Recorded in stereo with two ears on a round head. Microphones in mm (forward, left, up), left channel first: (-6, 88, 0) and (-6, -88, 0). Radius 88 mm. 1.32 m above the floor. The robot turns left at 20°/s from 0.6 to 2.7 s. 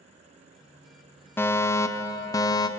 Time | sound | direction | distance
1.4 | a fire alarm | 10° left (ahead or behind) | 0.8 m